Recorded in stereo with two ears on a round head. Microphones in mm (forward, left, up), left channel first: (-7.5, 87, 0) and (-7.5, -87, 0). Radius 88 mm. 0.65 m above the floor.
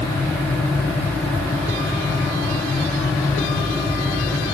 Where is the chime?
No chime in this recording.